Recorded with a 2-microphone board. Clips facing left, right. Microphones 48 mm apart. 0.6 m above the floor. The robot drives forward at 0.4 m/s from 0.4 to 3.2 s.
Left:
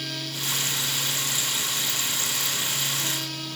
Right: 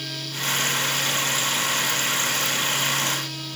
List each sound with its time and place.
Only background noise.